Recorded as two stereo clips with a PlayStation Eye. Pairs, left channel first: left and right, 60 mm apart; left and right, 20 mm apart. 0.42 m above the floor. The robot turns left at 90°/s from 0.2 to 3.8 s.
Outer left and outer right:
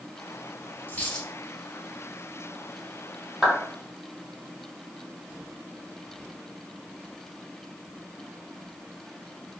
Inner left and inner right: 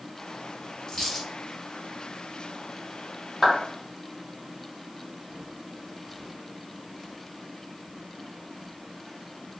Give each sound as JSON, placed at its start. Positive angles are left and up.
{"t": 0.9, "sound": "a dropped coin", "azimuth_deg": 35, "distance_m": 1.5}
{"t": 3.4, "sound": "a clap", "side_deg": -5, "distance_m": 1.3}